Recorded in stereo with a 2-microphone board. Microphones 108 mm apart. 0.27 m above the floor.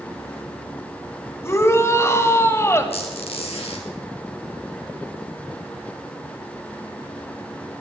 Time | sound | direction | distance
1.4 | a shout | 25° left (ahead or behind) | 1.6 m
2.9 | a squeak | 75° left (ahead or behind) | 3.5 m